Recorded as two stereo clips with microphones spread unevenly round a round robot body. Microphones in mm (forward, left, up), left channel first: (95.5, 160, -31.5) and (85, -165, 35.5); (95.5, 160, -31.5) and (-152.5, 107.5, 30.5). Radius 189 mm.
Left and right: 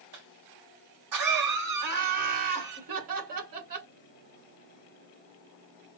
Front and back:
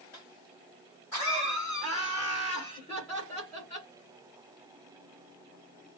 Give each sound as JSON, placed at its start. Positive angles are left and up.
{"t": 0.1, "sound": "a cough", "azimuth_deg": -70, "distance_m": 2.0}
{"t": 1.8, "sound": "laughter", "azimuth_deg": -70, "distance_m": 1.9}